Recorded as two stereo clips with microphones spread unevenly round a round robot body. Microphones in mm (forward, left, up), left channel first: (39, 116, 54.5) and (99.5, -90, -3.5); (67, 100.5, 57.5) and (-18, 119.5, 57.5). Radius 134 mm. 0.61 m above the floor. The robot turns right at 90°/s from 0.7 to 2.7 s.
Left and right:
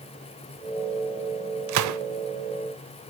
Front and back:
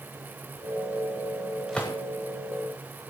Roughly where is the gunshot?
Right.